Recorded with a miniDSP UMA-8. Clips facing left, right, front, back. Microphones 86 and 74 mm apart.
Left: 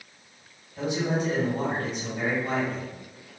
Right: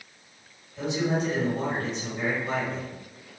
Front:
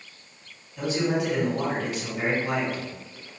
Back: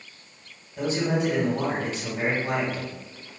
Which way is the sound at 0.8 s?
135° left.